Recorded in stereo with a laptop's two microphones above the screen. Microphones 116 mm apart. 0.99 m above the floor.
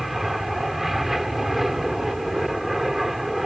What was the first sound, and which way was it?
An aircraft, centre (ahead or behind).